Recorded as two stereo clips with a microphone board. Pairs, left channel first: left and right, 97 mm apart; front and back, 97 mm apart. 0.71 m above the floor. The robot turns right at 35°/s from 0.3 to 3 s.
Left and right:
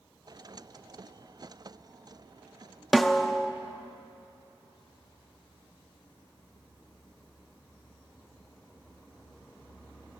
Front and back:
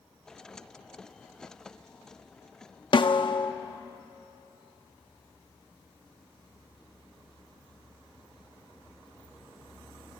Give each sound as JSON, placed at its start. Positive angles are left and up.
{"t": 2.9, "sound": "a snare drum", "azimuth_deg": 0, "distance_m": 0.6}